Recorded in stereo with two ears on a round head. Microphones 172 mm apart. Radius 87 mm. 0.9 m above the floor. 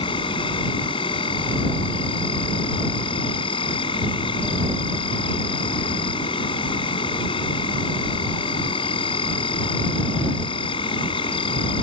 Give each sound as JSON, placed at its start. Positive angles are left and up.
{"t": 0.0, "sound": "an insect", "side_deg": 25}